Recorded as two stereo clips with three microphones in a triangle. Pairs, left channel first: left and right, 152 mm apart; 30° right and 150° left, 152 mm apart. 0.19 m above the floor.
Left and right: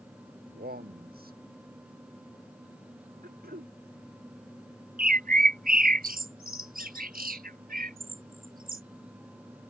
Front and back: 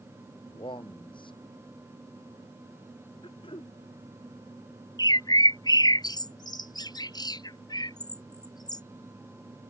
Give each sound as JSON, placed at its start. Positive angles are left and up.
{"t": 0.5, "sound": "a man speaking", "azimuth_deg": -90}
{"t": 3.2, "sound": "throat clearing", "azimuth_deg": -85}
{"t": 5.0, "sound": "a bird", "azimuth_deg": -95}